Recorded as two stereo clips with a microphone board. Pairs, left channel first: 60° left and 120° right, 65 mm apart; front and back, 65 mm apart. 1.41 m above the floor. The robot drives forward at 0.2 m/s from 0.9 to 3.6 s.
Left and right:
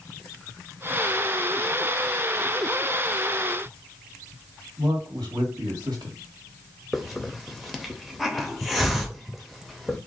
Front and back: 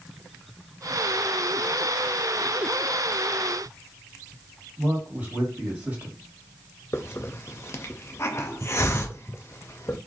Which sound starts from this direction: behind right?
A man speaking, at 4.8 s.